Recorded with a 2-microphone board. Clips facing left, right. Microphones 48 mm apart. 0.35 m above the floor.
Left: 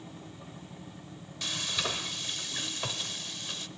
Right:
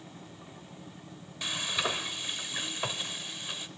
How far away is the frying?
About 0.9 m.